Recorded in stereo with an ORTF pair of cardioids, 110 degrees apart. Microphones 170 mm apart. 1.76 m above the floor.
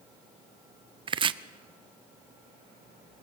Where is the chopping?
30° right, 0.8 m.